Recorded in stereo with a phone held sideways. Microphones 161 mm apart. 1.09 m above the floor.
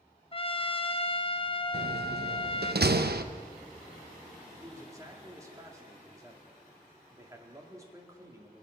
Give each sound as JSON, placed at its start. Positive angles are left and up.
{"t": 0.3, "sound": "a trumpet", "side_deg": 35, "distance_m": 0.6}
{"t": 1.7, "sound": "a door slam", "side_deg": -85, "distance_m": 0.7}
{"t": 4.5, "sound": "a man speaking", "side_deg": -20, "distance_m": 2.5}